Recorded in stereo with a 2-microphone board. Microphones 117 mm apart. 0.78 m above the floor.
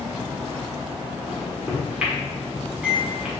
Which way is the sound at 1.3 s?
10° right (ahead or behind).